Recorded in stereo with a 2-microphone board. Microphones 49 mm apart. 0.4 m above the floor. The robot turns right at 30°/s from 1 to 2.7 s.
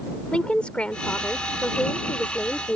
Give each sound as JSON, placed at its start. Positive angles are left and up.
{"t": 0.3, "sound": "a woman speaking", "azimuth_deg": 50}